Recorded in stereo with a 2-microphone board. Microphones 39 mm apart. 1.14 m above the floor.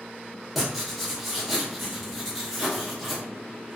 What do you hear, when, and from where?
0.6 s writing: centre (ahead or behind), 1.0 m